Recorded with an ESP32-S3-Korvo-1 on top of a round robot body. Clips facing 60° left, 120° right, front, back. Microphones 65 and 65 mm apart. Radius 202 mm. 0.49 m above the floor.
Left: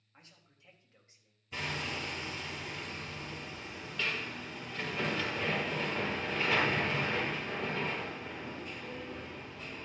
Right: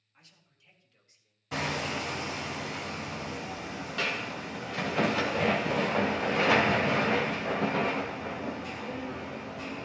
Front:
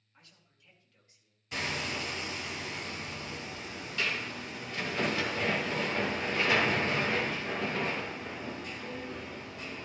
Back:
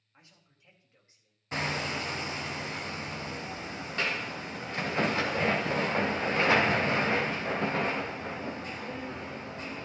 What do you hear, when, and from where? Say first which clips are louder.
0.1 s a man speaking: left 2 dB, back 1 dB; 115° left, 4 m; by 1.4 s 125° left, 3.5 m
1.5 s hammering: right 6 dB, back 3 dB; 125° right, 0.9 m